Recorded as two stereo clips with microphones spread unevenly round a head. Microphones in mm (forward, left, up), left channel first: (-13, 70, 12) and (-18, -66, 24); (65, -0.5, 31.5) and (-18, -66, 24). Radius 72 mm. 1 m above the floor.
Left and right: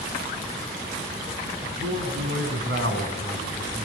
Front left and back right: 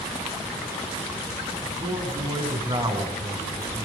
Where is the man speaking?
85° right, 9.5 m; by 3.9 s 95° right, 8 m.